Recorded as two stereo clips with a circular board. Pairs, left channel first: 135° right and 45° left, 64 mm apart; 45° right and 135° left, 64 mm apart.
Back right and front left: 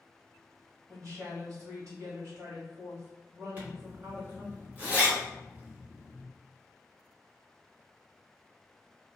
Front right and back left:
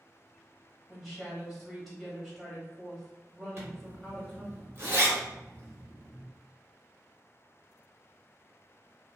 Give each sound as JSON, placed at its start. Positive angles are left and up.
{"t": 0.9, "sound": "a woman speaking", "azimuth_deg": 45, "distance_m": 1.5}
{"t": 3.6, "sound": "a zipper", "azimuth_deg": 100, "distance_m": 0.9}